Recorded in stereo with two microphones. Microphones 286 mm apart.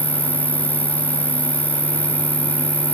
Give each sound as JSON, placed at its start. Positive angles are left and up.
{"t": 0.0, "sound": "an insect", "side_deg": -70}